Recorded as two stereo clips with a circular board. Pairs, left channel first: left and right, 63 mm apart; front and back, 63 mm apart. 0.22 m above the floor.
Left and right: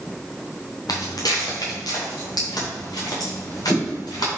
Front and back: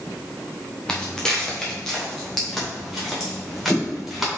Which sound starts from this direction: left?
Footsteps, at 0.9 s.